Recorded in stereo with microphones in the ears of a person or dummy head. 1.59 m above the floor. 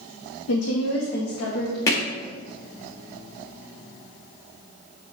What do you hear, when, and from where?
0.5 s a woman speaking: 80° left, 0.9 m; by 1.8 s 85° left, 1.8 m
1.9 s hammering: 15° left (ahead or behind), 1.0 m